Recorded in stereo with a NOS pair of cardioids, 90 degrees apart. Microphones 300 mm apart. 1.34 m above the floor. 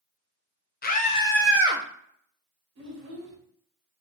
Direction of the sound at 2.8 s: 60° right.